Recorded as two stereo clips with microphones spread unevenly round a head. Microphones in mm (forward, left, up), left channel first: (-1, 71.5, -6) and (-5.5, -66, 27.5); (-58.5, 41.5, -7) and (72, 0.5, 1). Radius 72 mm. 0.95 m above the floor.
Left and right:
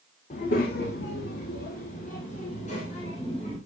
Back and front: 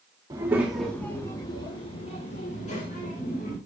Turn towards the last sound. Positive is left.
turn(degrees=135)